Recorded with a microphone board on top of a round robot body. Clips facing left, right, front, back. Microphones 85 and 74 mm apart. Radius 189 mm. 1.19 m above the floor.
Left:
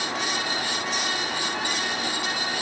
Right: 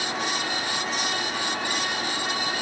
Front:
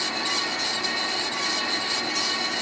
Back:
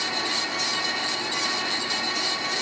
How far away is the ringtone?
No ringtone in this recording.